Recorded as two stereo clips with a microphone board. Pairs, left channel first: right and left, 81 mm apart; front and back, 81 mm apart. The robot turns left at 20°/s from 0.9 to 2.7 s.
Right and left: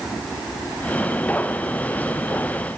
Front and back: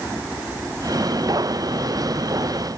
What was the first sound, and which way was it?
Only background noise.